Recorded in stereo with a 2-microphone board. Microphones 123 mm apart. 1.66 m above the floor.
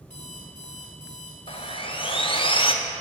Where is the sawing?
45° left (ahead or behind), 0.6 m.